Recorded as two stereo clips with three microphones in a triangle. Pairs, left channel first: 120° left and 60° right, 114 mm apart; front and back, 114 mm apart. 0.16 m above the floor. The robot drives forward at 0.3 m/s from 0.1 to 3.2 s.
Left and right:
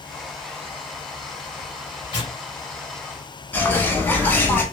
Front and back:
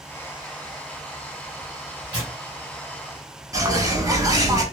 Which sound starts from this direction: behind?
A bird, at 3.5 s.